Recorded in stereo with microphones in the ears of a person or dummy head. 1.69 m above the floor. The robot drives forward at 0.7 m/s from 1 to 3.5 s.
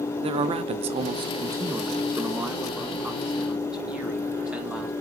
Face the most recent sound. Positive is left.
turn(degrees=-10)  # may be behind; listen again after turning